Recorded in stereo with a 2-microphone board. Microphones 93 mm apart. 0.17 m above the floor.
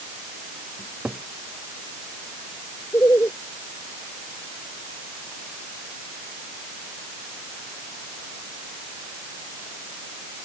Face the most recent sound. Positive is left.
turn(degrees=30)  # may be behind; listen again after turning